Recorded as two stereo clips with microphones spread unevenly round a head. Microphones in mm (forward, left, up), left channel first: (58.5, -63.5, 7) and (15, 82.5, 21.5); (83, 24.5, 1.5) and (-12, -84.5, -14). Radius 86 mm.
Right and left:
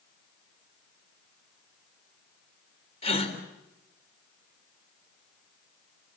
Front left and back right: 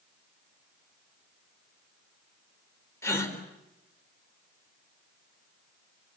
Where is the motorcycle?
No motorcycle in this recording.